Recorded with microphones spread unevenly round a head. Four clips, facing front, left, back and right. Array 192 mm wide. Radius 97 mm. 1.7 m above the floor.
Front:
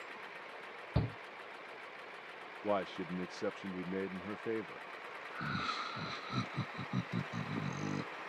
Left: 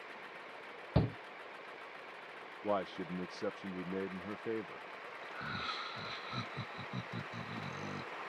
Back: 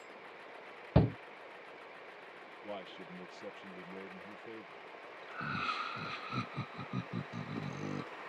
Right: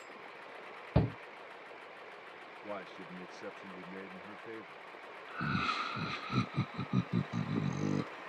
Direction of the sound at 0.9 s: Straight behind.